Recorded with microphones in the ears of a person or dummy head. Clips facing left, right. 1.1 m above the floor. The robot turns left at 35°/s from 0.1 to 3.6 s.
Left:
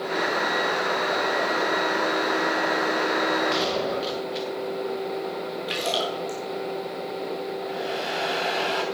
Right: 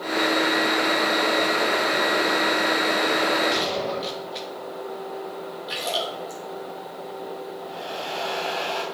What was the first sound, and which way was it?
A gunshot, centre (ahead or behind).